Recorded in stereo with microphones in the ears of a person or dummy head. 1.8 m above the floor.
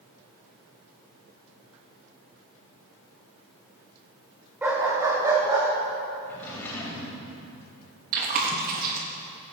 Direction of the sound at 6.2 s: 10° left (ahead or behind).